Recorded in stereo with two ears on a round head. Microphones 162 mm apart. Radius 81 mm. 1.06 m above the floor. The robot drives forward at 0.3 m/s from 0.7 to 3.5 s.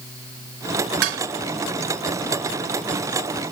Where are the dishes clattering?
80° right; by 1.2 s 75° right (ahead or behind).